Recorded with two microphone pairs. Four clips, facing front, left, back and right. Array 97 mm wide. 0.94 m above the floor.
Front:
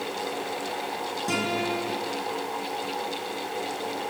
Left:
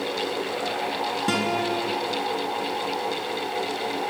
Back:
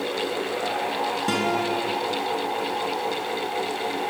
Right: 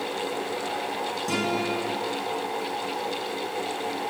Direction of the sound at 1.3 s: 115° left.